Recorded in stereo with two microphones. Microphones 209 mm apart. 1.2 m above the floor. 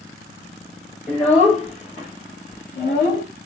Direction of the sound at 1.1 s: 30° left (ahead or behind).